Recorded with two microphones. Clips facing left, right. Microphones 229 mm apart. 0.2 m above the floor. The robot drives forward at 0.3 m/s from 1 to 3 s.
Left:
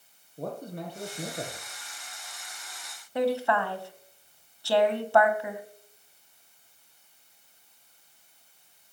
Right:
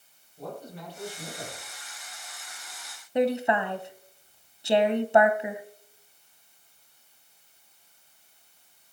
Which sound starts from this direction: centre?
A woman speaking, at 3.1 s.